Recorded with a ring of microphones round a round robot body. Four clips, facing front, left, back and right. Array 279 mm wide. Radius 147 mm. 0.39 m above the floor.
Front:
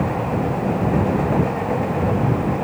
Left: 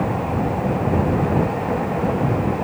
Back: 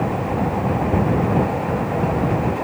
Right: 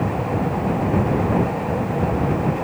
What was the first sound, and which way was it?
Only background noise.